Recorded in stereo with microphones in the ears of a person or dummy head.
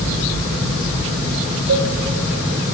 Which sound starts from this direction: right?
A cowbell, at 1.7 s.